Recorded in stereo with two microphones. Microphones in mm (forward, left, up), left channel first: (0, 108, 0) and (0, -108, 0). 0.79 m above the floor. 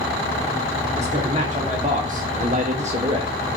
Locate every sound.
1.0 s a man speaking: 30° right (ahead or behind), 2.5 m; by 3.4 s 20° right (ahead or behind), 1.1 m